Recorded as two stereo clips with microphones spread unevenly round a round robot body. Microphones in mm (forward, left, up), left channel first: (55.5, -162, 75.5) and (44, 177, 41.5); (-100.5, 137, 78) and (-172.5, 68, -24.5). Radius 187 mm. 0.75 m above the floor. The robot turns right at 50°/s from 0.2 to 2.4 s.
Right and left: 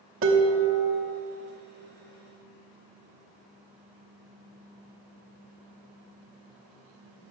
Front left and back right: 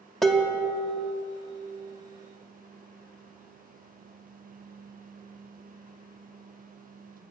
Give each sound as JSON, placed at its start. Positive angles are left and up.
{"t": 0.2, "sound": "dishes clattering", "azimuth_deg": 145, "distance_m": 0.9}